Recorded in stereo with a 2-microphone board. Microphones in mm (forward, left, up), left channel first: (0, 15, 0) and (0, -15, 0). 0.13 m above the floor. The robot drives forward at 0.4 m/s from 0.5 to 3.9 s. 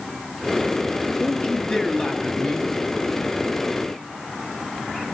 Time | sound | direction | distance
1.2 | a man speaking | 20° left (ahead or behind) | 2.5 m